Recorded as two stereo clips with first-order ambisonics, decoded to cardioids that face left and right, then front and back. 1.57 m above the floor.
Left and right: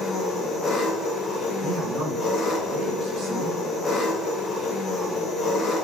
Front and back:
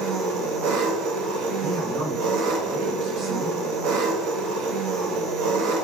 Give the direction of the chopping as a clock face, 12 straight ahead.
No chopping in this recording.